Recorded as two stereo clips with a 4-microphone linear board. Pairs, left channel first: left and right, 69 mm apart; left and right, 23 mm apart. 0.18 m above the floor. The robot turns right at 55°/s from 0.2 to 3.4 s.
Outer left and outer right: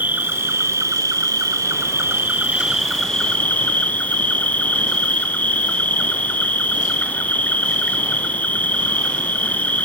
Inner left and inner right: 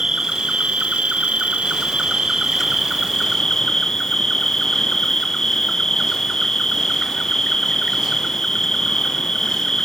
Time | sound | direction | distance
0.0 | an insect | 150° right | 1.0 m